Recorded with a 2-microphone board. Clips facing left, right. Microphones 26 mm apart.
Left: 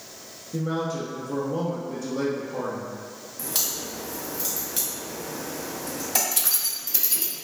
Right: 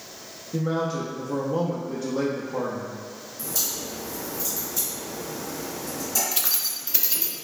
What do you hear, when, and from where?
0.5 s a man speaking: 20° right (ahead or behind), 0.6 m
3.4 s a crack: 80° left, 1.5 m
6.3 s keys jangling: 20° right (ahead or behind), 0.6 m